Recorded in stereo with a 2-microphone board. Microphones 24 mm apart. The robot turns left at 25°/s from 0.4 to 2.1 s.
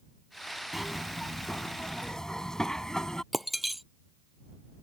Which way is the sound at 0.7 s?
175° right.